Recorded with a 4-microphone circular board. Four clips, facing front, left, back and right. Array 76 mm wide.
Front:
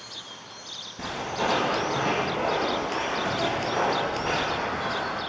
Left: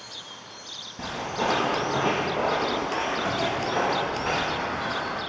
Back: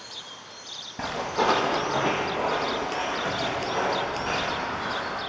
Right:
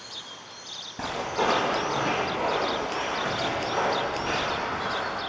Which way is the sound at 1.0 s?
155° right.